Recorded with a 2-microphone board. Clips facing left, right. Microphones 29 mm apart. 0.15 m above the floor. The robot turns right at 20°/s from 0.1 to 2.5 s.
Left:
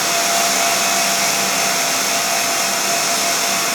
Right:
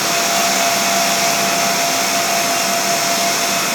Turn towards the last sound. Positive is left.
No sound to turn to.